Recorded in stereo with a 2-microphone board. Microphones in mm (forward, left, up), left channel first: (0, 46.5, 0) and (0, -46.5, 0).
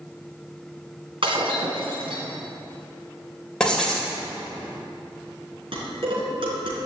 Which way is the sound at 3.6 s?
10° left (ahead or behind).